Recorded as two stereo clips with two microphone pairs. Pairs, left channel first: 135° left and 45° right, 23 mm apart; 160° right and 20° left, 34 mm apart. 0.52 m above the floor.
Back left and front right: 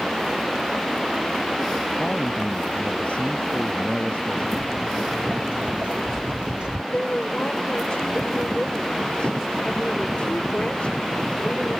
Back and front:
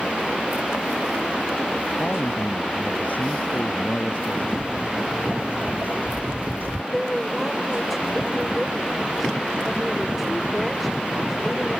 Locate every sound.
2.0 s a man speaking: 165° left
4.5 s footsteps: 40° right; by 6.8 s 5° left
6.9 s a woman speaking: 115° left